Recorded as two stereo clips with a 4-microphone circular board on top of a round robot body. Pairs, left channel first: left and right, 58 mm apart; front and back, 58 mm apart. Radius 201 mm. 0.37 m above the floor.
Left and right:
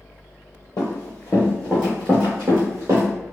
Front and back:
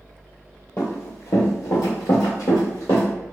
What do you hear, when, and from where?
0.8 s running footsteps: 55° left, 0.7 m; by 3.1 s 45° right, 1.0 m